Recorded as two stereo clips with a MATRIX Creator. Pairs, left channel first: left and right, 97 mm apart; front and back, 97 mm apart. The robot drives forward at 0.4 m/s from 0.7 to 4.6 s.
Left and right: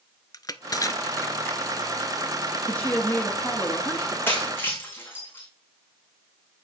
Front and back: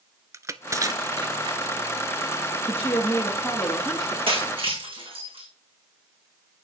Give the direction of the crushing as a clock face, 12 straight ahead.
8 o'clock.